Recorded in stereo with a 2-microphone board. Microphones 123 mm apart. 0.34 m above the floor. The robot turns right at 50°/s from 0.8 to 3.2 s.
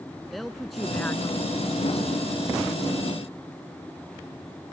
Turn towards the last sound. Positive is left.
turn(degrees=120)